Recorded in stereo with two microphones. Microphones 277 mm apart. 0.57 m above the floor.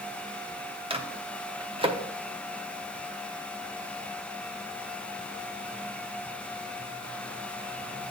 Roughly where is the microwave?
Centre.